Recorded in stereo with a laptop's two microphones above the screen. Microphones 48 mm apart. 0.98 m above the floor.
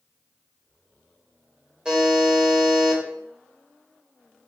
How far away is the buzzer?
About 0.8 m.